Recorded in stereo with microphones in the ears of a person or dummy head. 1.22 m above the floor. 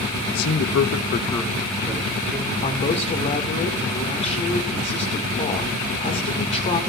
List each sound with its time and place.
0.3 s a man speaking: 55° left (ahead or behind), 1.2 m; by 2.5 s 15° right (ahead or behind), 2.5 m
2.6 s a man speaking: 40° left (ahead or behind), 1.7 m